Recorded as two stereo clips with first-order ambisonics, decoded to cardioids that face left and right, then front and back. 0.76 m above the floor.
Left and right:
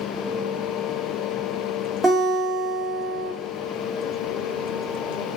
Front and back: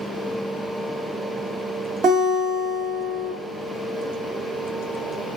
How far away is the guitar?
About 0.9 m.